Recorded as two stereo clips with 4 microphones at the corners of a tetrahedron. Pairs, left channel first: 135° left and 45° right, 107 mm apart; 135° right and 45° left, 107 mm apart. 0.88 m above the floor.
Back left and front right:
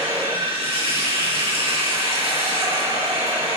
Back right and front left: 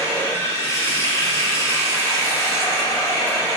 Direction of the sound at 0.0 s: 70° right.